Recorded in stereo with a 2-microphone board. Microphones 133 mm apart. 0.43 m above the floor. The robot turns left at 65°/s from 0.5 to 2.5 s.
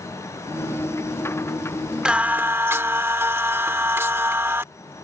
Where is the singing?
5° right (ahead or behind); by 4.6 s 15° right (ahead or behind).